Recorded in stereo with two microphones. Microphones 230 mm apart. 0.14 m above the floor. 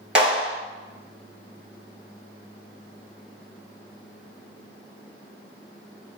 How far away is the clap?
About 1.4 m.